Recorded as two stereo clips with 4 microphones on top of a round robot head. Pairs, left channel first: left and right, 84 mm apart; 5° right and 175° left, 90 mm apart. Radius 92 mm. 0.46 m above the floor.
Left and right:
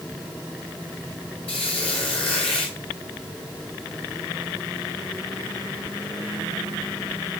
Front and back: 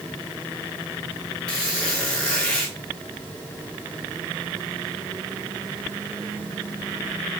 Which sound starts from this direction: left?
A squeak, at 1.5 s.